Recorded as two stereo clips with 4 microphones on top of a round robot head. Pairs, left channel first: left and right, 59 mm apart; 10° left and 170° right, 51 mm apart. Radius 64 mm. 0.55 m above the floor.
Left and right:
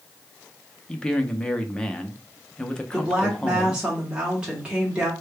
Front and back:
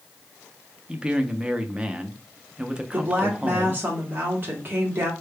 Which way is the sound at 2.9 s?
155° right.